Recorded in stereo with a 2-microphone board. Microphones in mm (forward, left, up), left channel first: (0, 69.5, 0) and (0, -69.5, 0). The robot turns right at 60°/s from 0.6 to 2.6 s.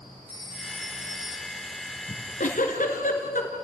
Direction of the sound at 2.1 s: 45° left (ahead or behind).